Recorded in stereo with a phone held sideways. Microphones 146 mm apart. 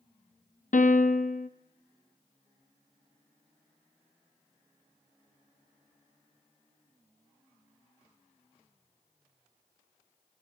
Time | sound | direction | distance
0.7 | a piano | 65° left (ahead or behind) | 0.6 m